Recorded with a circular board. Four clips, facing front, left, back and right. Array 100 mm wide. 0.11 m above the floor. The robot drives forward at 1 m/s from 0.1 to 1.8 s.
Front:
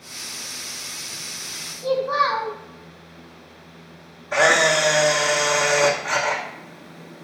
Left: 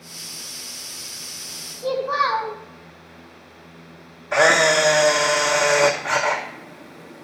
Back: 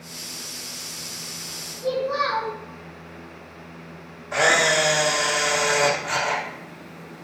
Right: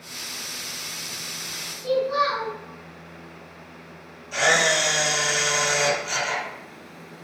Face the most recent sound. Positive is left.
turn(degrees=80)